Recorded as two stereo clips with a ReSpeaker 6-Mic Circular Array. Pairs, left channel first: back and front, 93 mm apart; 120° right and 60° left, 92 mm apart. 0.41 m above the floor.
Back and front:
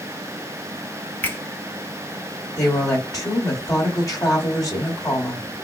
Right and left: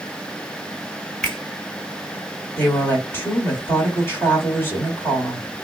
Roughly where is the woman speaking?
Behind.